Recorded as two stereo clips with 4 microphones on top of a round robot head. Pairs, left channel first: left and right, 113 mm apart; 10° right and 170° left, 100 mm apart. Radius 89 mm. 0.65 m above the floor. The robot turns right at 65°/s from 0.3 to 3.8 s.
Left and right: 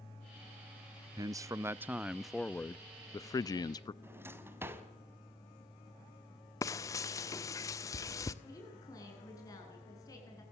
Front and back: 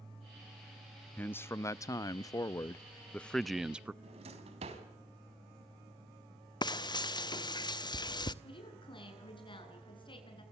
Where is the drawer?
160° right, 3.5 m.